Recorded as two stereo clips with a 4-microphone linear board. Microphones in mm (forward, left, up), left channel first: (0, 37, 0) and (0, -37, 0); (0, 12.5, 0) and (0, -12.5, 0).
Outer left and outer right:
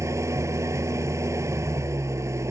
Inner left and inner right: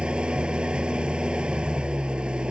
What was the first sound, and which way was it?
An engine running, 45° right (ahead or behind).